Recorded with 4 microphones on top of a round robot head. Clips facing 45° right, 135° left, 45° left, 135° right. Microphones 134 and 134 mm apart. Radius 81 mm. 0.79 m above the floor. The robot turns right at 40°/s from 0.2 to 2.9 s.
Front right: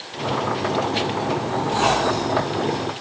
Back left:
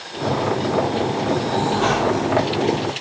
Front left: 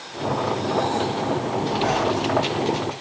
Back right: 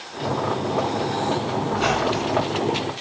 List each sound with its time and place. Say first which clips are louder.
1.7 s a squeak: front right 1 dB, even; 135° right, 4 m; by 2.5 s 100° right, 4 m